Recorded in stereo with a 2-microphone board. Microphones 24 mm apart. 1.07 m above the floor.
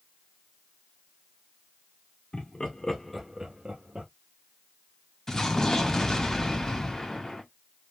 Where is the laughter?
50° left (ahead or behind), 1.2 m; by 4.1 s 60° right (ahead or behind), 1.1 m.